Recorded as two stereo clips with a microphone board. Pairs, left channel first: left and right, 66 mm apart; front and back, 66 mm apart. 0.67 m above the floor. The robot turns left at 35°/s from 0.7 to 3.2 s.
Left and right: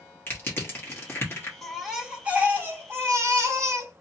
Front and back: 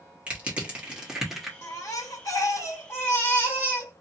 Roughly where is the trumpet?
No trumpet in this recording.